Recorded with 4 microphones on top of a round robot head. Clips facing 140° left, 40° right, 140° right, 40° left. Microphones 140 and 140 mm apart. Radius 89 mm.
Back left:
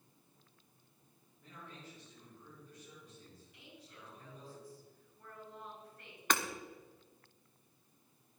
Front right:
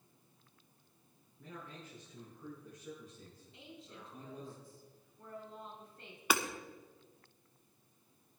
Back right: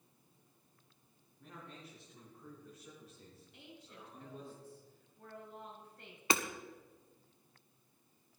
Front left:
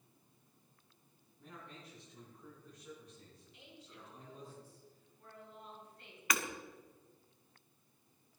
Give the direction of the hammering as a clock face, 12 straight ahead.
4 o'clock.